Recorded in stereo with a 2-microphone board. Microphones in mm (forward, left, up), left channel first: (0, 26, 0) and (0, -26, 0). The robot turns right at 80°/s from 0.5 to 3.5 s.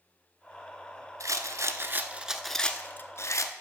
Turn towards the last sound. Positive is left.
turn(degrees=80)